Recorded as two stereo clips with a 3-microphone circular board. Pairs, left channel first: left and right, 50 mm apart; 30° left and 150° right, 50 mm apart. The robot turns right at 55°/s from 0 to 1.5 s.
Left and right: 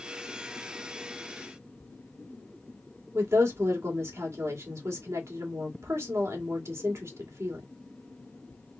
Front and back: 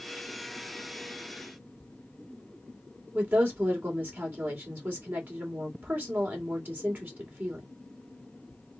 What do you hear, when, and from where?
3.1 s a woman speaking: 100° right, 2.5 m